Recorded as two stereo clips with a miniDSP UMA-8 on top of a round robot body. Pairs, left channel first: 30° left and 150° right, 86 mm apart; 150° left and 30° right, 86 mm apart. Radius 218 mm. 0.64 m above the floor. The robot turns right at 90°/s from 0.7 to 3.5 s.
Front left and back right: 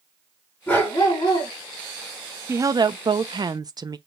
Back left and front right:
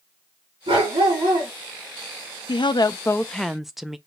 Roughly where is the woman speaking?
Behind left.